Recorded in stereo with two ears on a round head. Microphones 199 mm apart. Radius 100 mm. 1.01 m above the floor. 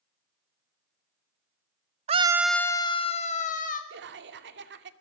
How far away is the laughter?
About 2 m.